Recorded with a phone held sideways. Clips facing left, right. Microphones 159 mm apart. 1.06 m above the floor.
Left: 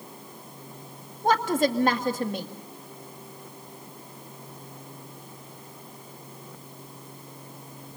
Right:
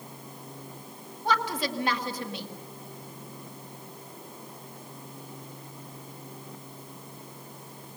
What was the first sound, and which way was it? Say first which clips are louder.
A woman speaking: left 6 dB; 45° left (ahead or behind).